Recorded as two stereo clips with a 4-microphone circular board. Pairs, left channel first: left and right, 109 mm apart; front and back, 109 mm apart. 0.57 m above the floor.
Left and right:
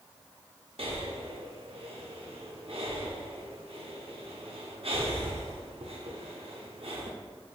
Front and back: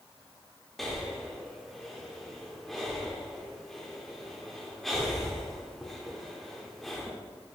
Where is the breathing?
90° right, 0.7 m.